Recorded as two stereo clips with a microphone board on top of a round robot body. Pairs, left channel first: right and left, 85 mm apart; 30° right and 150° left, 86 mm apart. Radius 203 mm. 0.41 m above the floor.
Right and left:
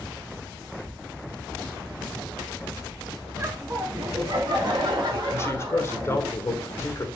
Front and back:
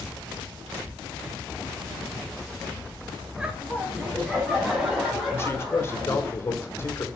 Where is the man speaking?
60° right, 1.0 m.